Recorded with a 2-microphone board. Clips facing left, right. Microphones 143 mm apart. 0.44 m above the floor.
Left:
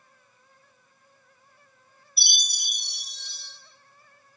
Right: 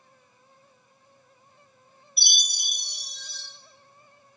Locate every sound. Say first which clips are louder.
2.2 s a chime: right 1 dB; 30° left (ahead or behind), 0.7 m